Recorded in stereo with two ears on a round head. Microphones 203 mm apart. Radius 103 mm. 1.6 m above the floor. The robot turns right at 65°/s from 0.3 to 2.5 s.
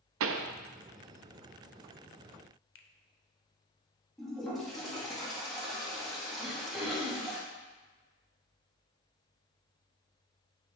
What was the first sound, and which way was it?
A pop, 65° right (ahead or behind).